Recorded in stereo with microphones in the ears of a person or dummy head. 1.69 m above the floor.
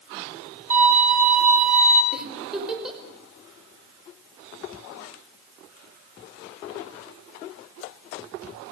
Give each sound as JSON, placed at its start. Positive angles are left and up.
{"t": 0.7, "sound": "a violin", "side_deg": -45, "distance_m": 8.0}
{"t": 2.1, "sound": "a giggle", "side_deg": 0, "distance_m": 5.5}